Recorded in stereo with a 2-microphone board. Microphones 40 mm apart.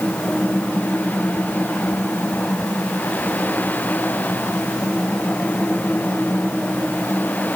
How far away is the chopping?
No chopping in this recording.